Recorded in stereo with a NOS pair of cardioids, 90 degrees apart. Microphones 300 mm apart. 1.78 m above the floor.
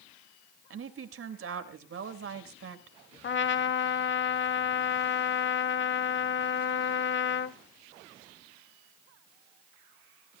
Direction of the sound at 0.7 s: 50° right.